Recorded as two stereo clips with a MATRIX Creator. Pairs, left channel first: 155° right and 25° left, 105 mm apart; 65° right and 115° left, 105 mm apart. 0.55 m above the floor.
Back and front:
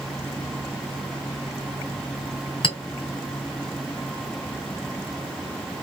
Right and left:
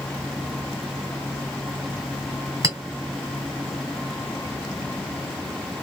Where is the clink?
165° left, 1.3 m.